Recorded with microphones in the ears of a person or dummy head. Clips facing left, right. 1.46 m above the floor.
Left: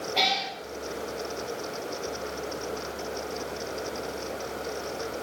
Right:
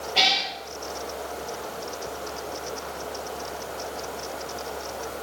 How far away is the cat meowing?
About 6.5 m.